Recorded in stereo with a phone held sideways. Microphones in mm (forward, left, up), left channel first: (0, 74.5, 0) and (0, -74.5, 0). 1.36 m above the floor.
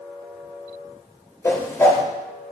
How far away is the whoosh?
About 3 m.